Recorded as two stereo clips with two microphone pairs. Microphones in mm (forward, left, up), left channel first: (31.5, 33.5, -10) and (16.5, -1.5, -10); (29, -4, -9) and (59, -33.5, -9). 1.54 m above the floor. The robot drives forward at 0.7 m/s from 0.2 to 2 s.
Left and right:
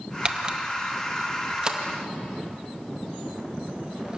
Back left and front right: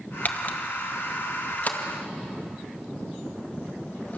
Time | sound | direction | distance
0.2 | a camera shutter | 175° right | 1.2 m